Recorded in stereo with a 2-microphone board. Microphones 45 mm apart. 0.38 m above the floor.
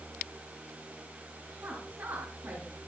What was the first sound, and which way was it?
A woman speaking, 60° right (ahead or behind).